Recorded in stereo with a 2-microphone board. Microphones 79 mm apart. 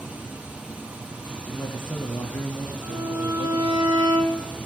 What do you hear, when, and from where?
0.0 s running water: 15° right (ahead or behind), 2.5 m
1.4 s a man speaking: 40° left (ahead or behind), 2.5 m
2.8 s a violin: 35° right (ahead or behind), 4 m